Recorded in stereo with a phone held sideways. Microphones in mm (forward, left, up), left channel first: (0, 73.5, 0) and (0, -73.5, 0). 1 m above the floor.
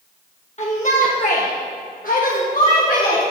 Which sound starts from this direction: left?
A shout, at 0.6 s.